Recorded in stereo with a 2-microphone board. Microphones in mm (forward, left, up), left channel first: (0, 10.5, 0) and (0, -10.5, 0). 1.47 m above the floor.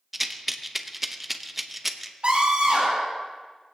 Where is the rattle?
5° right (ahead or behind), 0.8 m.